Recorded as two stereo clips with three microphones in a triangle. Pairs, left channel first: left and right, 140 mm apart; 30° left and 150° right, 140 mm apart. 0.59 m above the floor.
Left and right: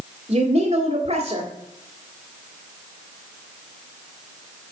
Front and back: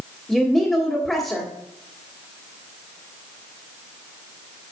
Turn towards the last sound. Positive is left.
turn(degrees=-50)